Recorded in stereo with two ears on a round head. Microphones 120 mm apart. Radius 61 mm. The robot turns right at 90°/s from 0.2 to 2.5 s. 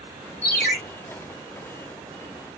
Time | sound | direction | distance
0.4 | a ringtone | 170° left | 1.5 m